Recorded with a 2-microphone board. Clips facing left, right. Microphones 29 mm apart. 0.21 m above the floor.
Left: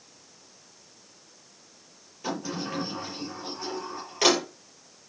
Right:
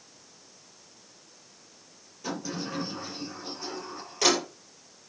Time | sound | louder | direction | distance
2.2 | a sliding door | left 2 dB | 25° left (ahead or behind) | 5.5 m